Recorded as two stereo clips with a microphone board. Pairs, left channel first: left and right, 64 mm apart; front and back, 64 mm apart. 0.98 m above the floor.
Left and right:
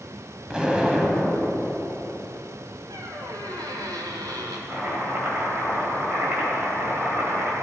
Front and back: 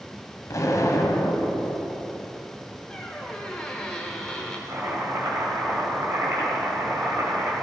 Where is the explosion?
15° right, 1.5 m.